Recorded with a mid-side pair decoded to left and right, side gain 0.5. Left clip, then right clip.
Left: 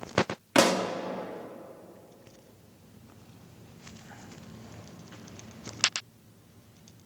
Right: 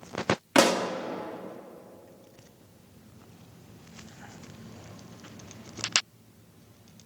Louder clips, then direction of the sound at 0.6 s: Even; 5° right.